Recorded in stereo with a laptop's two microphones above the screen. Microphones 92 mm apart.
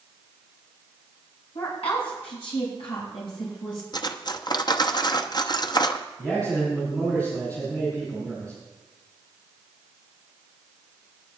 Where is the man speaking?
15° left (ahead or behind), 5.5 m.